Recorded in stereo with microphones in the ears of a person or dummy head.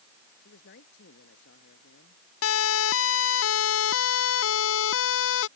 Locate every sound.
0.4 s a man speaking: 65° left (ahead or behind)
2.4 s a siren: 85° left; by 5.5 s 75° left (ahead or behind)